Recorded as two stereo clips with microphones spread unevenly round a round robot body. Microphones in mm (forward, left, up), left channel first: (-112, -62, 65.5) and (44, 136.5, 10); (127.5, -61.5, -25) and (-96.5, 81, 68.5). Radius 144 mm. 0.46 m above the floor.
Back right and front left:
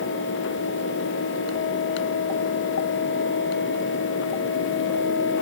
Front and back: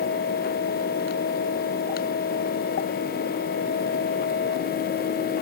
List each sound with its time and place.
Only background noise.